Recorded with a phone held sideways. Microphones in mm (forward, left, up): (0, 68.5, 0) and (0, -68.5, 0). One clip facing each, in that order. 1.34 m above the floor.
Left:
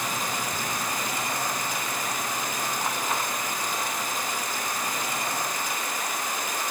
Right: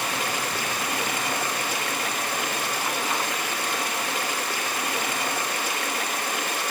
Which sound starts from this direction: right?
Running water, at 0.0 s.